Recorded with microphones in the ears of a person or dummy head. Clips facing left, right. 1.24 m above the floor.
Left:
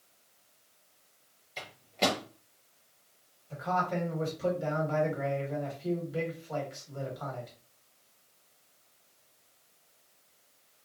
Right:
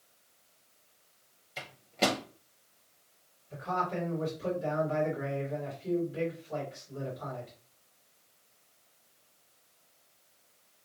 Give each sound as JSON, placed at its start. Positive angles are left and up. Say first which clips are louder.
{"t": 1.6, "sound": "a microwave", "louder": "even", "side_deg": -5, "distance_m": 0.6}
{"t": 3.5, "sound": "a man speaking", "louder": "left 2 dB", "side_deg": 65, "distance_m": 1.5}